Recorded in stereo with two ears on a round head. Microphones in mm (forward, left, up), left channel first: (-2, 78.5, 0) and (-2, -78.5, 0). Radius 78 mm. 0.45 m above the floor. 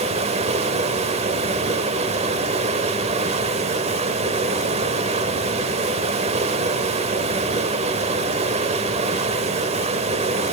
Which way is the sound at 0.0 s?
35° right (ahead or behind).